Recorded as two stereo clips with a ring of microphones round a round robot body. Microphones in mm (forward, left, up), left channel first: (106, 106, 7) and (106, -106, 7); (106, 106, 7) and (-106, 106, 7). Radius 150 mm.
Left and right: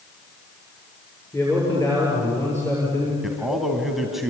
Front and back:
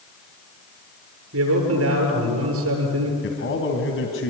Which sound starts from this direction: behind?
A man speaking, at 1.3 s.